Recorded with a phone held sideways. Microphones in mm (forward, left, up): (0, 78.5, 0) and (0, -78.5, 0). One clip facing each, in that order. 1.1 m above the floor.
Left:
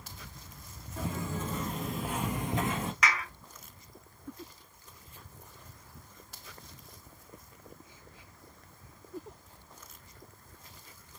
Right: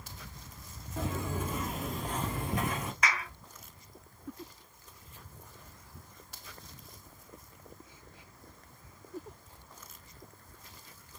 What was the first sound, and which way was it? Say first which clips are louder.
Footsteps: right 1 dB; 20° right (ahead or behind).